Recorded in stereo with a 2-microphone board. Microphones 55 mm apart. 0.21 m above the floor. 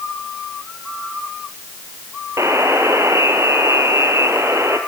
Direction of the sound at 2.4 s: 60° right (ahead or behind).